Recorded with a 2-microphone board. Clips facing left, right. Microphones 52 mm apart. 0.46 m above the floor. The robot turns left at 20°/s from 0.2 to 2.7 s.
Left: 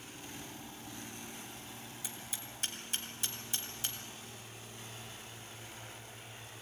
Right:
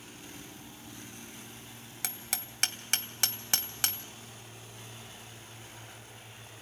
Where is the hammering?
70° right (ahead or behind), 2 m.